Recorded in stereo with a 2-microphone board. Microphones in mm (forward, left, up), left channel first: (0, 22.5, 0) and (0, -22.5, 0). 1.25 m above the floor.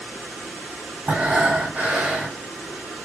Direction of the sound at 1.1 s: 35° right (ahead or behind).